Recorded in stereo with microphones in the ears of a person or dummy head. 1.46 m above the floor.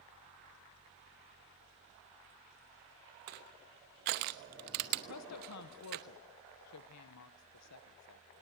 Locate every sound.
3.3 s crushing: 45° right (ahead or behind), 0.9 m
5.1 s a woman speaking: 85° left, 1.1 m